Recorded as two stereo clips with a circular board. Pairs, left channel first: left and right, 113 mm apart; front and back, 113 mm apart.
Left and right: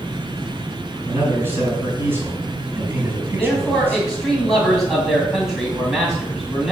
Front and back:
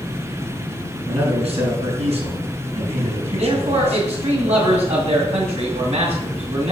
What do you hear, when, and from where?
1.1 s a man speaking: 160° right, 5 m
3.4 s a man speaking: 175° right, 2.5 m